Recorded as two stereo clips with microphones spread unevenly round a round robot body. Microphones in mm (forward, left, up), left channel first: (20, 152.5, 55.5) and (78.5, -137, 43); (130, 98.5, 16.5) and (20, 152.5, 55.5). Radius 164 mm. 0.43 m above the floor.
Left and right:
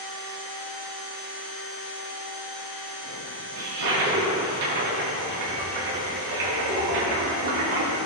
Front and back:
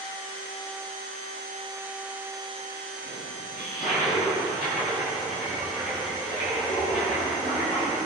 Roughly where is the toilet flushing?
Right.